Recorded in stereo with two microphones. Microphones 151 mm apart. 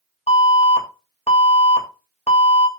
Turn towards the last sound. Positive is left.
turn(degrees=45)  # may be behind; listen again after turning